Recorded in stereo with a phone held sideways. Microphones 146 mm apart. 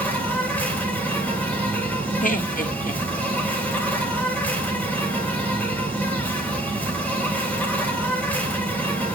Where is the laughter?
65° left (ahead or behind), 1.7 m.